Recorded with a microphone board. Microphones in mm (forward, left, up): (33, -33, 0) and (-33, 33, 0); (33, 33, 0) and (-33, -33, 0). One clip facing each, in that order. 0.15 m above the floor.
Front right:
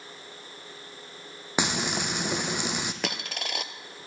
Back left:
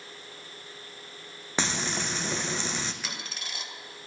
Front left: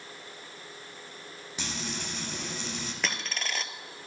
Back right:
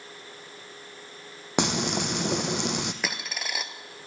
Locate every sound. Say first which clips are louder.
1.6 s frying: front right 2 dB, back right 12 dB; 120° right, 1.0 m
3.0 s a dropped coin: front right 7 dB, back right 1 dB; 55° right, 0.7 m